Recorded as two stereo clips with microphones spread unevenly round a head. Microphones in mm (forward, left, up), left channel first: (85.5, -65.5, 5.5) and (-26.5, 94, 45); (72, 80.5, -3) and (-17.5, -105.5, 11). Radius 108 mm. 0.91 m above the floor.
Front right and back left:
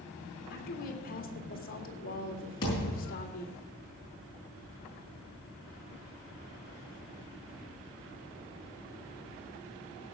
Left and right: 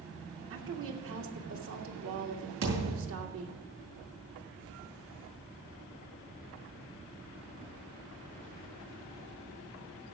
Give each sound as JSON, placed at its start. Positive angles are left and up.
{"t": 0.5, "sound": "a woman speaking", "azimuth_deg": -95, "distance_m": 2.0}
{"t": 2.6, "sound": "a thud", "azimuth_deg": -125, "distance_m": 6.0}